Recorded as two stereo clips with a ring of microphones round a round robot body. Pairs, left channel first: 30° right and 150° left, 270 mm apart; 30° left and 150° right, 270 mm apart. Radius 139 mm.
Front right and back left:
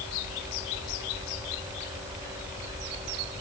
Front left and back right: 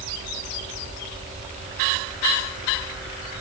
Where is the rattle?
No rattle in this recording.